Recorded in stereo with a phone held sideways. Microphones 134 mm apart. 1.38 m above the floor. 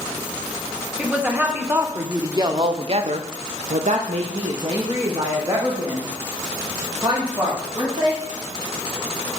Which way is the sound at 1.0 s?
10° right (ahead or behind).